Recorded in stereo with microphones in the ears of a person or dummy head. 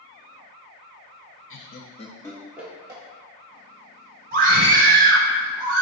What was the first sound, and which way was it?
Laughter, 60° left (ahead or behind).